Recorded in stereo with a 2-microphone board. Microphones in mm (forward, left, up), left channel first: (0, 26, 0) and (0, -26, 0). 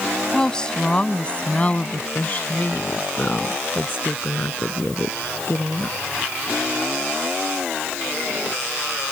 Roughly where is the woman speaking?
Centre.